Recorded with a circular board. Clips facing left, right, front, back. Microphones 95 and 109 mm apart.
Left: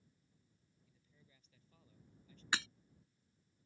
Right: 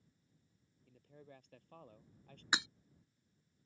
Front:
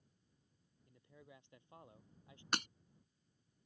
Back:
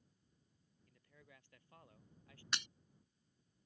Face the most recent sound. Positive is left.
turn(degrees=-20)